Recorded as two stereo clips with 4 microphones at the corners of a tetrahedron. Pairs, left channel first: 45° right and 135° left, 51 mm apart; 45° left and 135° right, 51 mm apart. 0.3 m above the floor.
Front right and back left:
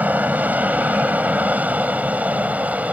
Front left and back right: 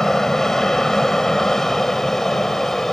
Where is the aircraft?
120° left; by 2.9 s 125° left.